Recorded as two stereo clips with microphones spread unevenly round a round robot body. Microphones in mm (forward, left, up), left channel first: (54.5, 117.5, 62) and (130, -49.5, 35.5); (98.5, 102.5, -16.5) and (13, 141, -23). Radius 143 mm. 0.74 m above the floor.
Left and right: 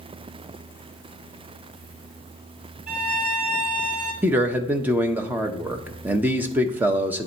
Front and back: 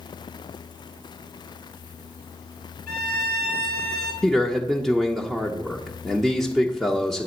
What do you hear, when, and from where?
2.9 s a violin: 110° right, 1.9 m
4.2 s a man speaking: 125° right, 0.6 m